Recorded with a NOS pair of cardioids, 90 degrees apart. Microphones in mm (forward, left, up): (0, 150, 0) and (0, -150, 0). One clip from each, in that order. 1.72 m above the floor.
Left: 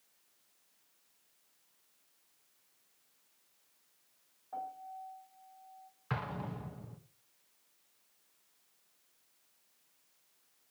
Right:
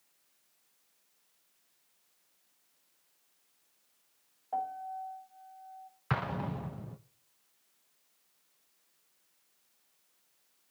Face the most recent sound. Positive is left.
turn(degrees=-35)